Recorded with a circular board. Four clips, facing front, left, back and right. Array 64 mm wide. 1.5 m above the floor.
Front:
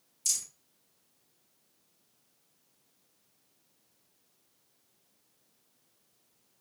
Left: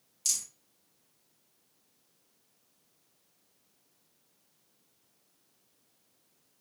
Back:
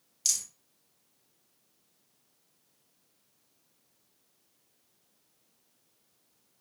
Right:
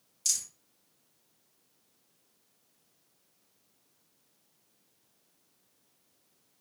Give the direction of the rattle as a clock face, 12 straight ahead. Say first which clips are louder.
Right 1 dB, back 2 dB; 6 o'clock.